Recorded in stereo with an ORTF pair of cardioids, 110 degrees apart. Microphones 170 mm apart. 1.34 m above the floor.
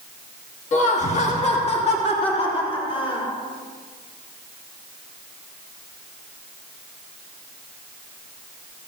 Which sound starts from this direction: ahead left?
Laughter, at 0.7 s.